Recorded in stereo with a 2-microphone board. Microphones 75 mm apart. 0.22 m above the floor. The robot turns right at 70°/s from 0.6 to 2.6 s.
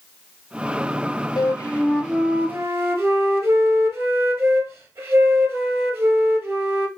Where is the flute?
130° left, 1.0 m; by 6.9 s 145° right, 1.0 m.